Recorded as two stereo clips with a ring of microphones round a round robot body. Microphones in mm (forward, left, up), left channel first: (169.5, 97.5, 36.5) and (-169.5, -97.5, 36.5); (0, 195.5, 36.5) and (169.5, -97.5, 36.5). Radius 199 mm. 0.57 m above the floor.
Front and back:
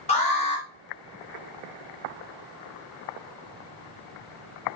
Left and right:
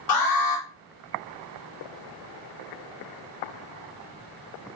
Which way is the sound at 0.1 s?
100° left.